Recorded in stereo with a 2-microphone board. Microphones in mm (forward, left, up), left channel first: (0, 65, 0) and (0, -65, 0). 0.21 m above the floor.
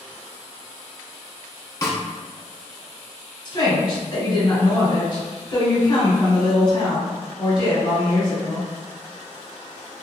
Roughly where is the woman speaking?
Left.